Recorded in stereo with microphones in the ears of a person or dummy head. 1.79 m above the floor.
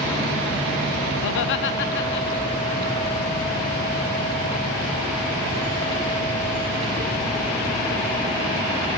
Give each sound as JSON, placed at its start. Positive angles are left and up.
{"t": 1.2, "sound": "laughter", "side_deg": 75, "distance_m": 0.7}